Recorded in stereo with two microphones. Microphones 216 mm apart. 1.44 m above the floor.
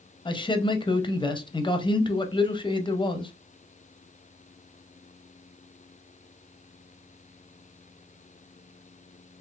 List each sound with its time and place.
0.2 s a man speaking: 20° left (ahead or behind), 0.6 m